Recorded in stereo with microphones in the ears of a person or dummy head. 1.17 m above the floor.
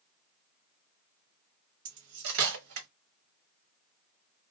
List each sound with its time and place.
1.9 s cutlery clinking: 75° right (ahead or behind), 1.1 m